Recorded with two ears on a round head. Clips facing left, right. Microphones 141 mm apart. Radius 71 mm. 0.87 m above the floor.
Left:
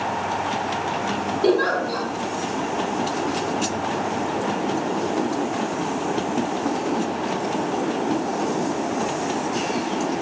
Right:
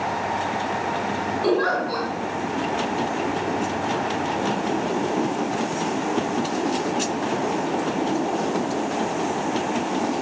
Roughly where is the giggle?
Left.